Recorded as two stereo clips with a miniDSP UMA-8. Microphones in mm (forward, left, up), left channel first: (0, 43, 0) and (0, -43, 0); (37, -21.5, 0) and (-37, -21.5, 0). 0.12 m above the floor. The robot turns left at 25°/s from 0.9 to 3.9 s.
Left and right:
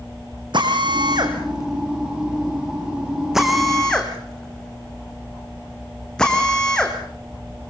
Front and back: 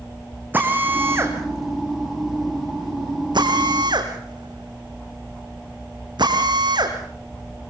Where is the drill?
115° right, 3.5 m; by 7.0 s 170° left, 3.5 m.